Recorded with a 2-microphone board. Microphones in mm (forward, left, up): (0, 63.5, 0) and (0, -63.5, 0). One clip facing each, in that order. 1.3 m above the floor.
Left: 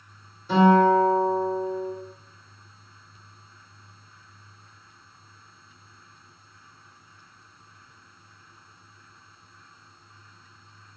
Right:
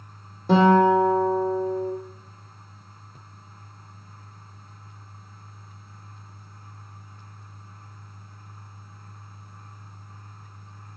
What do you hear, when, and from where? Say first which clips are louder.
0.5 s a guitar: right 1 dB; 60° right (ahead or behind), 1.9 m